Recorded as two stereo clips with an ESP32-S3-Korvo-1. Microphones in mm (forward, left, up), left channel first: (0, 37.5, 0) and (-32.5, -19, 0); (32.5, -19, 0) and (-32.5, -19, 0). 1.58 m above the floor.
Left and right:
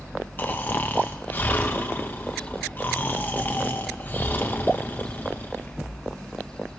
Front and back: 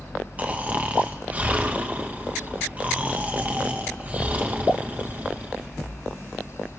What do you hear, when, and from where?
0.4 s snoring: 115° left, 1.4 m